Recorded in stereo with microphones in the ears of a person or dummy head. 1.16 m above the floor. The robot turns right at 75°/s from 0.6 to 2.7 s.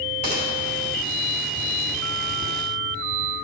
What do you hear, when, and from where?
0.2 s a gunshot: 35° right (ahead or behind), 2 m